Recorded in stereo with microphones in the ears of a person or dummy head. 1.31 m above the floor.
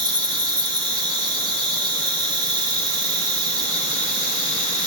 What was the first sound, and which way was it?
An insect, 20° right (ahead or behind).